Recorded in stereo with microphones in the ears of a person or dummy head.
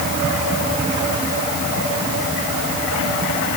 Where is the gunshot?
No gunshot in this recording.